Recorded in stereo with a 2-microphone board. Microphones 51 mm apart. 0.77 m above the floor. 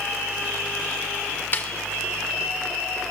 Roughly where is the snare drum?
Left.